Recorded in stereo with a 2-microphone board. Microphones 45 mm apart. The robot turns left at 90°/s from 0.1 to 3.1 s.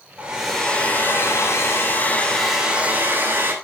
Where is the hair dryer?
155° right, 4.5 m; by 3.5 s 55° right, 4.5 m.